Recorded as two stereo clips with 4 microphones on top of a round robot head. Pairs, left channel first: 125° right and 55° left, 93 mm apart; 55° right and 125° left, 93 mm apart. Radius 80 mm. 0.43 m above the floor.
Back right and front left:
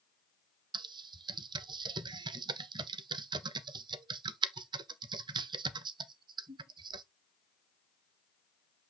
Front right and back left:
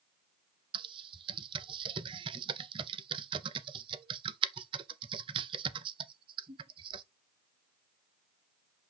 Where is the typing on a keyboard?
95° left, 0.6 m.